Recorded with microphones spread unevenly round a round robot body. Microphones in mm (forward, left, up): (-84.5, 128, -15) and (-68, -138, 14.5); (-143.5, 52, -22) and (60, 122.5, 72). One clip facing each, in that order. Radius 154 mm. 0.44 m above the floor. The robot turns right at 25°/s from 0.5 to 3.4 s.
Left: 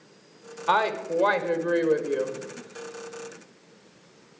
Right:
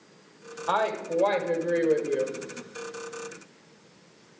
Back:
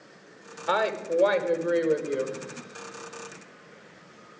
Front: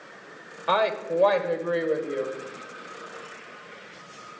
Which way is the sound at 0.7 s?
135° left.